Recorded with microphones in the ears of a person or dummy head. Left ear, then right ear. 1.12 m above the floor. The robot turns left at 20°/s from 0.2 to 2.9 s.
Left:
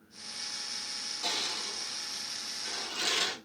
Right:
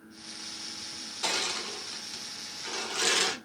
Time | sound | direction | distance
1.2 | crushing | 20° right (ahead or behind) | 0.6 m